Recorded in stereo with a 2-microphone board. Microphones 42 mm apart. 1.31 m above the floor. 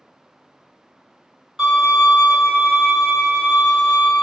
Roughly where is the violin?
Centre.